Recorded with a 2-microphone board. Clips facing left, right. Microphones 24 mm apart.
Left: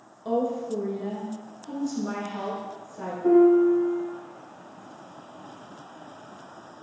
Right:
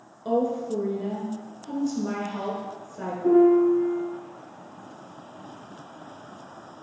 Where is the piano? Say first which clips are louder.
Even; 25° left (ahead or behind), 1.9 m.